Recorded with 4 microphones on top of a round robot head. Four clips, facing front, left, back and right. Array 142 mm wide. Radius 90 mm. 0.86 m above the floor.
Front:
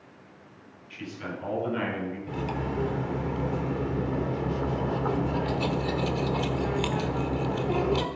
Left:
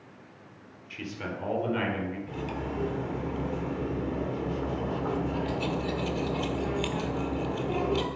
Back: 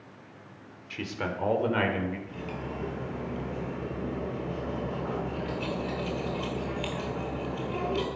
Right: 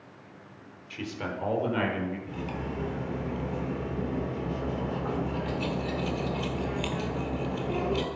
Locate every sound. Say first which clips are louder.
0.9 s a man speaking: right 2 dB, back 3 dB; 170° right, 3.5 m
2.3 s cutlery clinking: left 1 dB, front 6 dB; 5° left, 1.7 m